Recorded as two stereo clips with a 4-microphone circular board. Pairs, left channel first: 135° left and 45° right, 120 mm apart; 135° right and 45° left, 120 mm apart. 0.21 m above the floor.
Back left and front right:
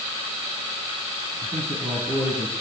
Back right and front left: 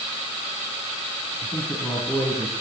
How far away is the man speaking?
About 9 m.